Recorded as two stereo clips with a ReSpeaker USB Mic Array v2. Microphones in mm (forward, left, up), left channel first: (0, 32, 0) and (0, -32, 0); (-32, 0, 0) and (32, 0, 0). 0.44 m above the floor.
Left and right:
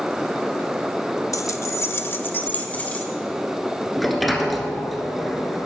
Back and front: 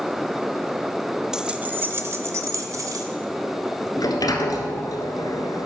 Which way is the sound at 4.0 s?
Straight behind.